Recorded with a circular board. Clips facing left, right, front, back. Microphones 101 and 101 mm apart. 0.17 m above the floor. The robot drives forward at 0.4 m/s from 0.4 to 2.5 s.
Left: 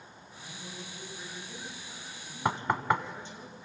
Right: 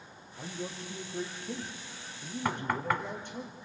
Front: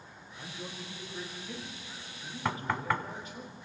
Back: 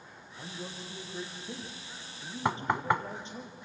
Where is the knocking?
130° left, 0.8 m; by 3.0 s 135° left, 0.8 m.